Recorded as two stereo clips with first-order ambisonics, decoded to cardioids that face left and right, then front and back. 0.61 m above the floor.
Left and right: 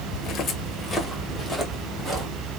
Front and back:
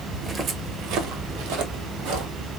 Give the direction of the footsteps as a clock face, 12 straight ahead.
9 o'clock.